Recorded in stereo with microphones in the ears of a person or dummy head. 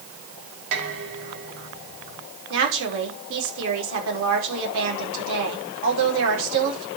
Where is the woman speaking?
75° right (ahead or behind), 6 m.